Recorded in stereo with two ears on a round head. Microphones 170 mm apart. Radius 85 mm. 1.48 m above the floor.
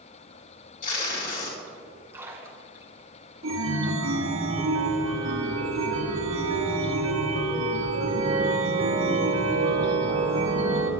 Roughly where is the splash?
Centre.